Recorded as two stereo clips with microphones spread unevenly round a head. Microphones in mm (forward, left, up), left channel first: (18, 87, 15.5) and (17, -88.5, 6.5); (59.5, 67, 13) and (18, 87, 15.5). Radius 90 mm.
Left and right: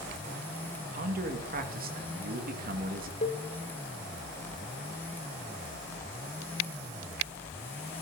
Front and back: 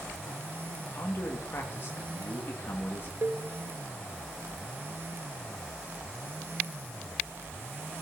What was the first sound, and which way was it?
A man speaking, 65° right.